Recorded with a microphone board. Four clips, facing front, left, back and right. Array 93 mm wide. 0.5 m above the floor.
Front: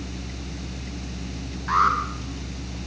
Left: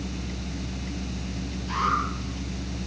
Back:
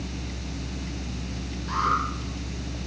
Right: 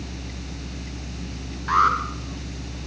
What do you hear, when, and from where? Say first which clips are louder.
1.7 s an alarm: right 7 dB, front 5 dB; 60° right, 7 m